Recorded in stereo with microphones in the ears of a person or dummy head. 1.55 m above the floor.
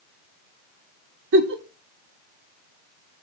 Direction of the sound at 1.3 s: 70° right (ahead or behind).